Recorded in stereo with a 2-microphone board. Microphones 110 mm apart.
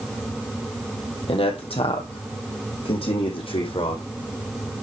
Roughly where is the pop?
I don't hear a pop.